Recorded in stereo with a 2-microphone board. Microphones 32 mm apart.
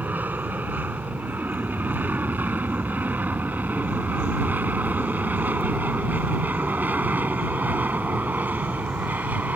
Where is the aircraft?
70° right (ahead or behind); by 9.6 s 65° right (ahead or behind).